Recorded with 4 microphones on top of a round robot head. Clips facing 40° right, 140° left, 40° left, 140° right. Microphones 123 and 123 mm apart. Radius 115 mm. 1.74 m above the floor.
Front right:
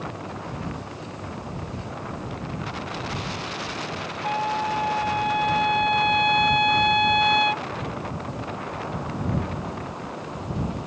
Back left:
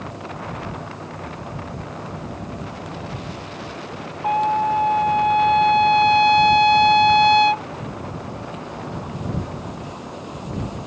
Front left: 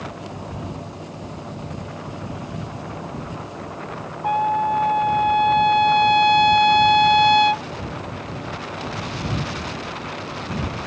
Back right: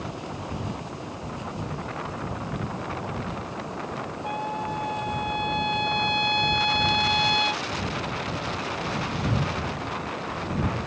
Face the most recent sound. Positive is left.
turn(degrees=80)